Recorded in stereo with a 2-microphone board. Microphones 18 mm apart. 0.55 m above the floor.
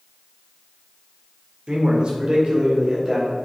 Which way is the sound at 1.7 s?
55° right (ahead or behind).